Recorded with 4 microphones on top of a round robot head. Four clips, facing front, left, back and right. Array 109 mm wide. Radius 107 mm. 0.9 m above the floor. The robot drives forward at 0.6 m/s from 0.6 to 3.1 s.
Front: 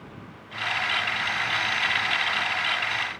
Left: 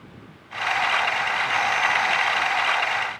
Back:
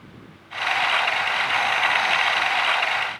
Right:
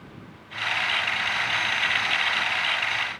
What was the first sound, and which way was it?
Only background noise.